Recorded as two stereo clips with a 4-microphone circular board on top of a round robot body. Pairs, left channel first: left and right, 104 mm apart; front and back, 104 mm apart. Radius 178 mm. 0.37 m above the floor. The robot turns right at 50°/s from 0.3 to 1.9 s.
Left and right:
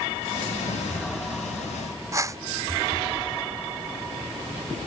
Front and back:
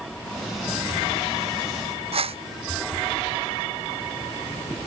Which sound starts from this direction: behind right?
A whoosh, at 2.1 s.